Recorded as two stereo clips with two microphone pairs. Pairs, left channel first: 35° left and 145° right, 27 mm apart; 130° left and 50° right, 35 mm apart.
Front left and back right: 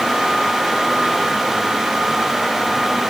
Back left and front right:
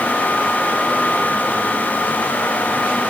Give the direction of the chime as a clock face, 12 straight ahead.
I don't hear a chime.